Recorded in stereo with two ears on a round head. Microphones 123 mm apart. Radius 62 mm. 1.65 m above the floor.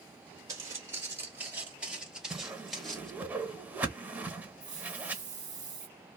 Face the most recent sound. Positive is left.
turn(degrees=-30)  # may be behind; listen again after turning